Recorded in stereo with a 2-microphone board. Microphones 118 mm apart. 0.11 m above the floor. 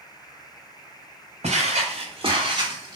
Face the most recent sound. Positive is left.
turn(degrees=-30)  # may be behind; listen again after turning